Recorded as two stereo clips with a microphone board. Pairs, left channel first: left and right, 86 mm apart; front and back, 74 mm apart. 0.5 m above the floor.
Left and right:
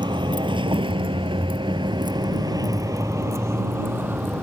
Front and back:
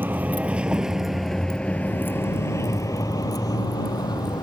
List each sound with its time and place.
0.0 s a vehicle: 115° right; by 4.4 s 20° right